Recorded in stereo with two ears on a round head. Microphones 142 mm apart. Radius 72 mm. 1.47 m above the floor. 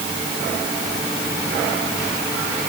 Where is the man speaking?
No man speaking in this recording.